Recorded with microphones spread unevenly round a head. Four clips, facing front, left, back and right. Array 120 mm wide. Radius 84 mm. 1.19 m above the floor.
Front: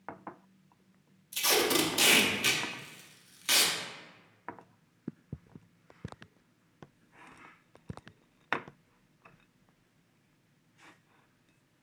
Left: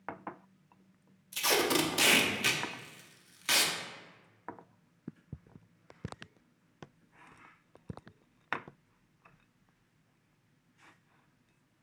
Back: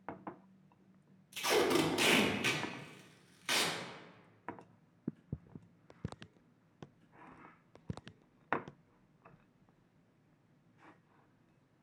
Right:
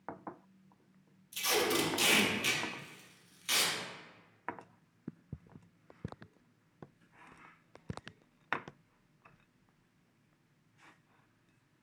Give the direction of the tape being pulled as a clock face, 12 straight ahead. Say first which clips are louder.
Left 3 dB, front 1 dB; 10 o'clock.